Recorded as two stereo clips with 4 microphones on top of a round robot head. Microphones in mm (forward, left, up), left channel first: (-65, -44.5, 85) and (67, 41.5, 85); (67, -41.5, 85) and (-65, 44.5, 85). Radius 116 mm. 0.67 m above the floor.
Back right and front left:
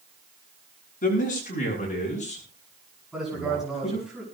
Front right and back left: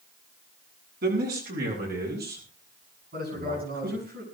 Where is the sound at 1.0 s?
175° left, 8.5 m; by 4.1 s 160° left, 12.5 m.